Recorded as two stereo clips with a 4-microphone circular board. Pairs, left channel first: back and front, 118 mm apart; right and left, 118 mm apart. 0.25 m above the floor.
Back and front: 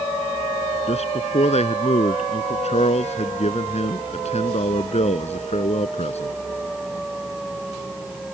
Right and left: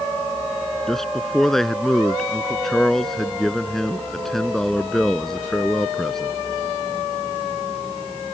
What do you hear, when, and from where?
0.9 s a man speaking: 175° right